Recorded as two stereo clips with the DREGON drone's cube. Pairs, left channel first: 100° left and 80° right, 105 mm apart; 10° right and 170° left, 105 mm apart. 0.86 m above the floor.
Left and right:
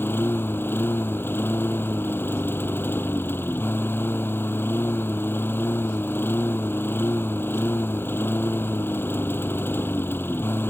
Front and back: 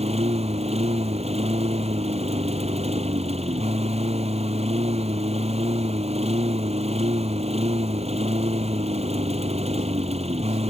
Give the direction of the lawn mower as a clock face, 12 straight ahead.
6 o'clock.